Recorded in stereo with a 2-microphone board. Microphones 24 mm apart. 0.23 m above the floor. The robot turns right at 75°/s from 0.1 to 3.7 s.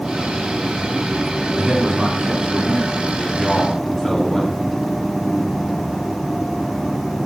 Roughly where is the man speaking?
Behind.